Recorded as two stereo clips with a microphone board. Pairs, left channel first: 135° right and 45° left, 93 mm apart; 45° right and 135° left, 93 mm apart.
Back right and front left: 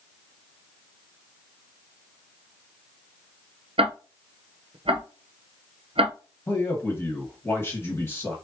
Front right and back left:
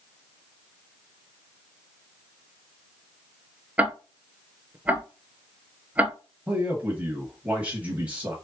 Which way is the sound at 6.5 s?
165° right.